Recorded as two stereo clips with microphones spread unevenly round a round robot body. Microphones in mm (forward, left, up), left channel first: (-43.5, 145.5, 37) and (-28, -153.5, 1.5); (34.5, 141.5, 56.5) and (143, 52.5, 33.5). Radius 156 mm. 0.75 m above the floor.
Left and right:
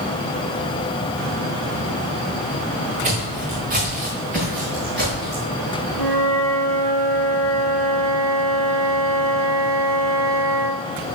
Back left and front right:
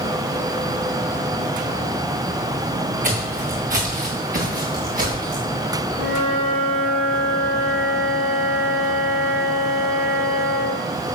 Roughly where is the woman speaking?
No woman speaking in this recording.